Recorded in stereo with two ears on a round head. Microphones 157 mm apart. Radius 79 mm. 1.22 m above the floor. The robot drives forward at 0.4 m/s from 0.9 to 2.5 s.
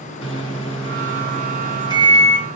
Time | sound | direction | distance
0.2 | a microwave | 30° left (ahead or behind) | 1.5 m